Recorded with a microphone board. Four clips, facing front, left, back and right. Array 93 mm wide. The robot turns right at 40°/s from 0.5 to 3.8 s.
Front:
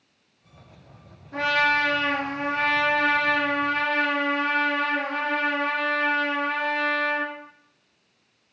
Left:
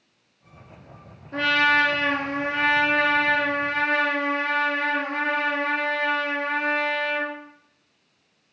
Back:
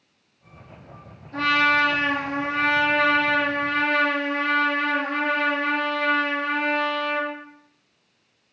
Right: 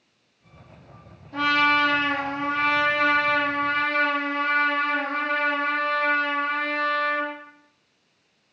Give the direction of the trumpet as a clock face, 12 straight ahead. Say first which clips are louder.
Even, back 2 dB; 10 o'clock.